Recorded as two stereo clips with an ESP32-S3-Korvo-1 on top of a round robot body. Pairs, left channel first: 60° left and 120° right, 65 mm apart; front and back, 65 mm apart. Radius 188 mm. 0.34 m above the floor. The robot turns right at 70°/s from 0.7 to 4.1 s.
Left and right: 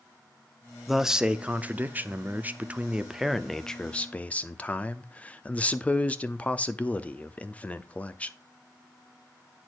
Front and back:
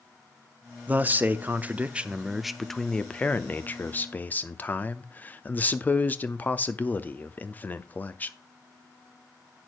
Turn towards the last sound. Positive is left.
turn(degrees=20)